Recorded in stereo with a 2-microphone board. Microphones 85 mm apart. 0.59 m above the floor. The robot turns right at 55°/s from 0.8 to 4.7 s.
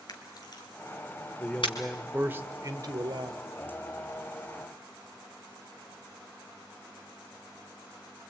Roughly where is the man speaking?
Behind left.